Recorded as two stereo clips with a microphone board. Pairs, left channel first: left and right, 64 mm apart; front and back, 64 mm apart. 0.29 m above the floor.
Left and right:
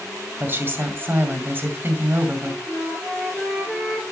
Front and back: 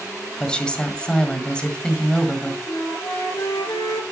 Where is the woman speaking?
65° right, 1.9 m.